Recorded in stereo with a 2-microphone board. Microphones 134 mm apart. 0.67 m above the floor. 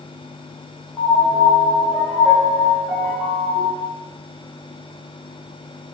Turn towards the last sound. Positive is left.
turn(degrees=-5)  # may be behind; listen again after turning